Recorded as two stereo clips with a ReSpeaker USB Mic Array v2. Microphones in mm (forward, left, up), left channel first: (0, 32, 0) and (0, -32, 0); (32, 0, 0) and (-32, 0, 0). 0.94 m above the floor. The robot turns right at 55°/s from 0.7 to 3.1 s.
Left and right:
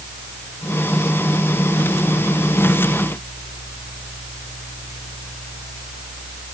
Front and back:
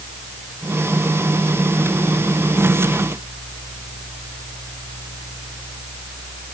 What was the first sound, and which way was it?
Only background noise.